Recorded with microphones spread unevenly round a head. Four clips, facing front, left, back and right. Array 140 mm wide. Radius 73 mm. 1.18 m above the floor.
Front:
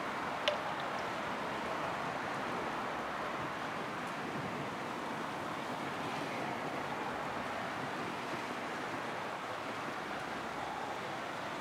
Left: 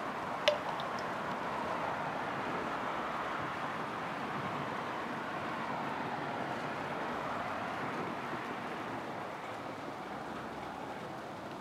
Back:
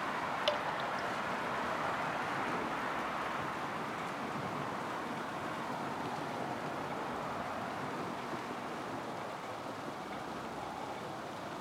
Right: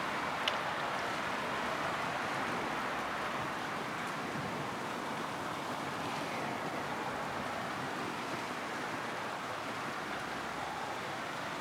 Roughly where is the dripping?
Behind left.